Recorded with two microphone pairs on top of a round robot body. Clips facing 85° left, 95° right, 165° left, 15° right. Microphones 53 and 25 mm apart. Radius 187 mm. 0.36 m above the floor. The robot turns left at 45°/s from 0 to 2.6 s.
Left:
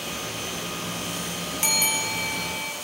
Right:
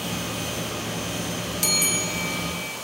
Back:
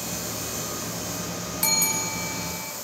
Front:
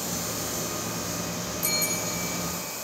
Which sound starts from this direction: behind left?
A bell, at 1.6 s.